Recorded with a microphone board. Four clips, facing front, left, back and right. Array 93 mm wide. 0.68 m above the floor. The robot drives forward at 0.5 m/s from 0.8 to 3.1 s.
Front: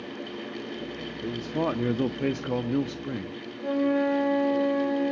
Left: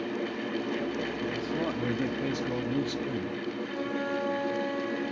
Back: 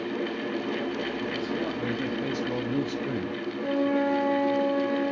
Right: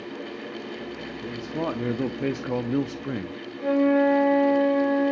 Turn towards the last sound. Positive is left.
turn(degrees=-85)